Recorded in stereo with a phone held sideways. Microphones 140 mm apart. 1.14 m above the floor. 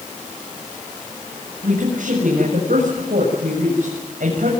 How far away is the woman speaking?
About 7.5 m.